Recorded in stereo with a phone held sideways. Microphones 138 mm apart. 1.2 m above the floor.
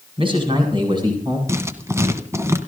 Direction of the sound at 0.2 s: 45° right (ahead or behind).